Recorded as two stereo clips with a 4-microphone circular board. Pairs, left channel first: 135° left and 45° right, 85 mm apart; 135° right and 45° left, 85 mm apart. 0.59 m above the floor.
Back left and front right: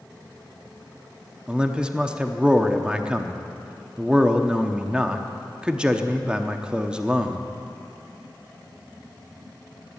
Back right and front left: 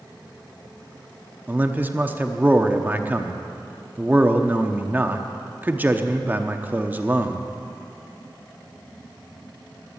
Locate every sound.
1.5 s a man speaking: 15° left, 0.9 m